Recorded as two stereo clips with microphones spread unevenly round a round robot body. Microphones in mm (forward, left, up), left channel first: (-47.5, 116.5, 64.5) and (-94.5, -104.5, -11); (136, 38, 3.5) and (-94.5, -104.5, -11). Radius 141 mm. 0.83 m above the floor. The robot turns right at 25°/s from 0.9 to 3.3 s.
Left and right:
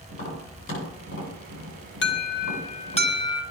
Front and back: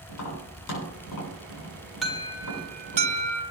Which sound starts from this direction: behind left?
An alarm, at 2.0 s.